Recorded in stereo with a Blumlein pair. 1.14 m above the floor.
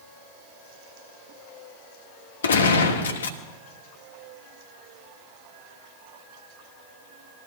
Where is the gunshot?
65° left, 1.3 m.